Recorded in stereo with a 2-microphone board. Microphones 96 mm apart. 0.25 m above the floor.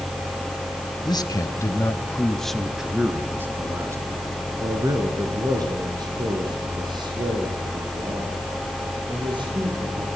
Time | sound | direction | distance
1.1 | a man speaking | 45° left (ahead or behind) | 1.6 m